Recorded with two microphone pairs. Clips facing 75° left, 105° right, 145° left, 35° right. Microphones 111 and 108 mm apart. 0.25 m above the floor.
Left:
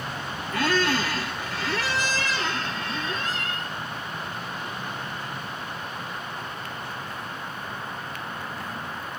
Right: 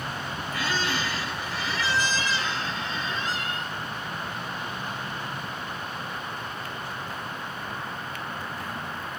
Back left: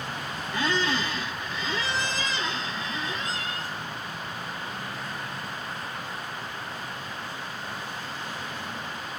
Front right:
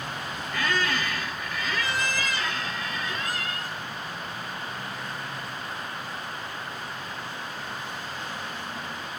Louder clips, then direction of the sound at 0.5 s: Left 6 dB, back left 1 dB; 85° left.